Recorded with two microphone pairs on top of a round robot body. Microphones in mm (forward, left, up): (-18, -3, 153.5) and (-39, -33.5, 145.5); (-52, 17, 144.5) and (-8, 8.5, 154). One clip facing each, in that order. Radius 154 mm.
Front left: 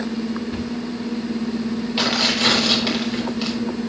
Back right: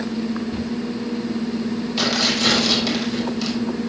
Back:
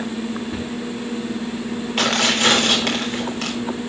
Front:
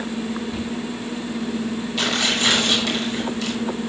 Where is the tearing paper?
125° left, 3.5 m.